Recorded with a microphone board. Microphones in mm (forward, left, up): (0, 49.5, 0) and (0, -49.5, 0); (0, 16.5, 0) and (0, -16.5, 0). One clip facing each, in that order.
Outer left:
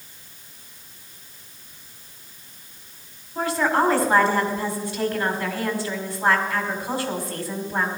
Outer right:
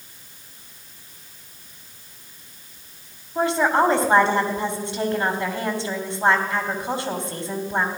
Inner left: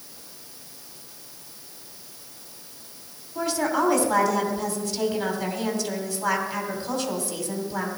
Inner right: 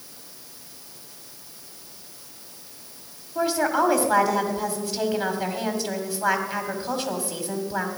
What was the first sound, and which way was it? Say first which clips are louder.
A woman speaking: outer right 2 dB, inner right 2 dB; 25° right (ahead or behind).